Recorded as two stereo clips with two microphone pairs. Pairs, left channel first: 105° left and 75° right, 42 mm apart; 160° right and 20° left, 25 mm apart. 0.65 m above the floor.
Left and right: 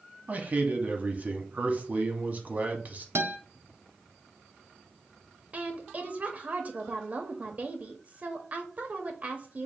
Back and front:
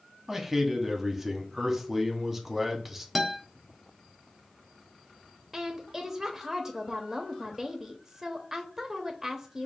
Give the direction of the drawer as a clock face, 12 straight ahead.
No drawer in this recording.